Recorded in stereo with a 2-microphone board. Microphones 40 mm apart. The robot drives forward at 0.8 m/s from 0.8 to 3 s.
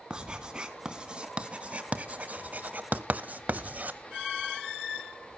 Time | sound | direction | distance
0.1 | writing | 20° right (ahead or behind) | 1.9 m